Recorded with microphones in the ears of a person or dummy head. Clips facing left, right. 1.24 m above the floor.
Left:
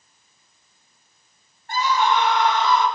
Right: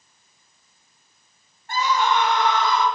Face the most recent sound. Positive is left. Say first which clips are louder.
# left 1 dB
turn(degrees=-75)  # may be behind; listen again after turning